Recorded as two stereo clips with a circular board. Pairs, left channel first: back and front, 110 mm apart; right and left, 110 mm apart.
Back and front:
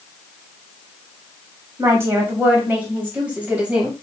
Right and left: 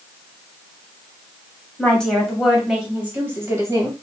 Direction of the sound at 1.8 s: 25° right.